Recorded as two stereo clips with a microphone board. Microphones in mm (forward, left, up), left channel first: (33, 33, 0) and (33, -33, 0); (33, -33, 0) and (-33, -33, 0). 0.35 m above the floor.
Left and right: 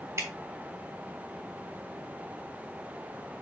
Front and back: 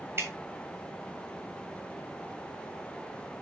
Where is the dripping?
130° right, 3.5 m.